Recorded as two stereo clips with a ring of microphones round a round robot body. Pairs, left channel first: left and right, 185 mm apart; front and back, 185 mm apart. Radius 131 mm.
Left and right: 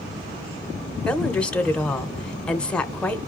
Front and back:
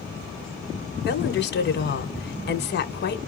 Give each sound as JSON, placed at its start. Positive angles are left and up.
{"t": 1.1, "sound": "a woman speaking", "azimuth_deg": 5, "distance_m": 1.5}